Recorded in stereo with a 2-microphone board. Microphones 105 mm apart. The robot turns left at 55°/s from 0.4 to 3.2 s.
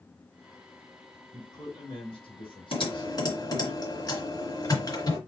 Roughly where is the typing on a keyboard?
Left.